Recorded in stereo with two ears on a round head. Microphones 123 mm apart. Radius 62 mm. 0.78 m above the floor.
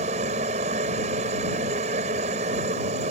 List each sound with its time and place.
0.0 s a helicopter: 55° right (ahead or behind)